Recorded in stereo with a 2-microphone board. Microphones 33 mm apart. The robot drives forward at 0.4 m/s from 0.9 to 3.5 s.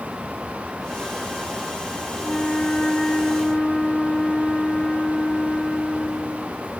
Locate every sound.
2.2 s a flute: 35° left (ahead or behind), 1.1 m; by 6.6 s 30° left (ahead or behind), 1.4 m